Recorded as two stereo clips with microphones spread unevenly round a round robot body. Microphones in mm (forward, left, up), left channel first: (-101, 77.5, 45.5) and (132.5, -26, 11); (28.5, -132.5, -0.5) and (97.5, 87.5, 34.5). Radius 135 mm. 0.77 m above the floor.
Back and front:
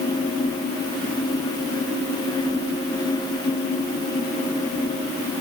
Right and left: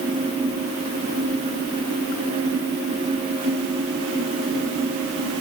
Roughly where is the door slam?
I don't hear a door slam.